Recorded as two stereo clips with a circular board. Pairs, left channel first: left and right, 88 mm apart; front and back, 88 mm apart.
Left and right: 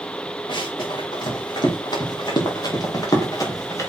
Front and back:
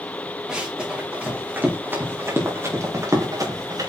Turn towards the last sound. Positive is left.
turn(degrees=140)